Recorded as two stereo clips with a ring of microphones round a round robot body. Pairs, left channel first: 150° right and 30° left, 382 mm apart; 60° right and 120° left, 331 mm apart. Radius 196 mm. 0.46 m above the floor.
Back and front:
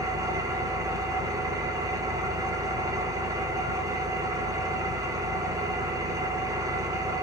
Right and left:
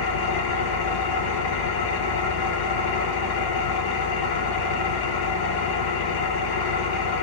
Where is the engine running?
50° right, 0.8 m.